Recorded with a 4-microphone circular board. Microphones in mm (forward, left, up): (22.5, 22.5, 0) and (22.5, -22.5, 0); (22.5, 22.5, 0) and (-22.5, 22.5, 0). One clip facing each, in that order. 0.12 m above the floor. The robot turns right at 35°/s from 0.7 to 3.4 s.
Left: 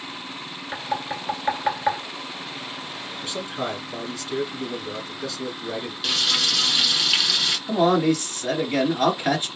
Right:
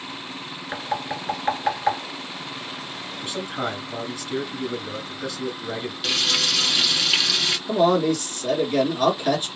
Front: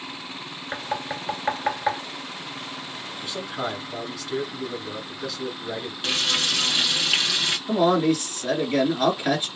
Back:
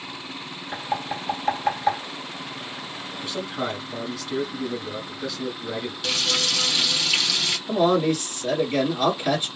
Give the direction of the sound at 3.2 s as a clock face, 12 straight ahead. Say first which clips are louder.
Right 1 dB, back 1 dB; 3 o'clock.